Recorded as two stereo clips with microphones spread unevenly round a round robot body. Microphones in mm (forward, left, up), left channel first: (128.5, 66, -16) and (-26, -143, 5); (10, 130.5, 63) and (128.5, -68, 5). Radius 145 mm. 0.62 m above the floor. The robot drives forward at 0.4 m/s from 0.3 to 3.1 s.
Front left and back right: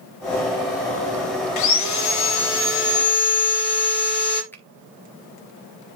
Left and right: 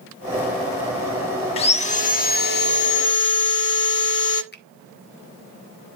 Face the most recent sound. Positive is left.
turn(degrees=120)